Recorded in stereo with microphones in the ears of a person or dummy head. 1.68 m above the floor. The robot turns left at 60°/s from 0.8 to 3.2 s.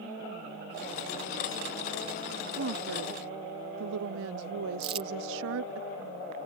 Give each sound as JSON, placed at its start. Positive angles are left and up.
{"t": 2.6, "sound": "a woman speaking", "azimuth_deg": -60}
{"t": 4.8, "sound": "crumpling", "side_deg": -25}